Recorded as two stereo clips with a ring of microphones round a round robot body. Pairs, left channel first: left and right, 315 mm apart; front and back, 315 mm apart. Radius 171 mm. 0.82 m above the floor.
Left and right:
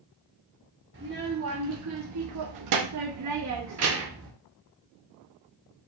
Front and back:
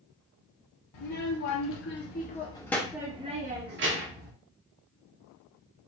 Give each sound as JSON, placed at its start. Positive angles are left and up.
{"t": 0.9, "sound": "a child speaking", "azimuth_deg": -30, "distance_m": 1.4}